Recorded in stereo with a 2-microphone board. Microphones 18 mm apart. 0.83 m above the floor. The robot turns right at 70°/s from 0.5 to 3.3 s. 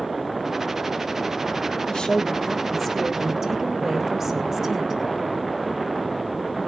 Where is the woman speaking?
135° left, 1.1 m; by 5.0 s 125° right, 1.1 m.